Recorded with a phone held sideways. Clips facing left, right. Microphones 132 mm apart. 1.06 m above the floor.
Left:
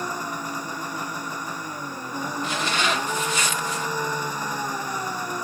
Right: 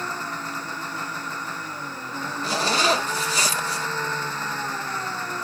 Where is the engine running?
10° left (ahead or behind).